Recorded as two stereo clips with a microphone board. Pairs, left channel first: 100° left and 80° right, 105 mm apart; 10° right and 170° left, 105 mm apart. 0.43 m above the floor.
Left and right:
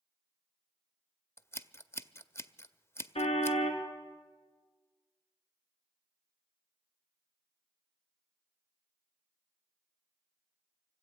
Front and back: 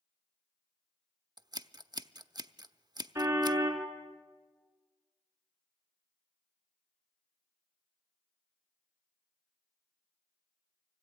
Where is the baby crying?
No baby crying in this recording.